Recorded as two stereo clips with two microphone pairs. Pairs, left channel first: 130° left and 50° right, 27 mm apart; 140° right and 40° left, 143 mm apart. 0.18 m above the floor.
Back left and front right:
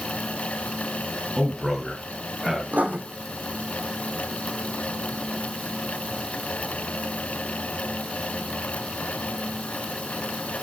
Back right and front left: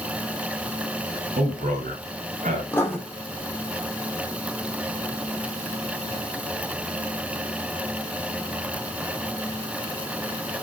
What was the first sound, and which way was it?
A man speaking, 40° left.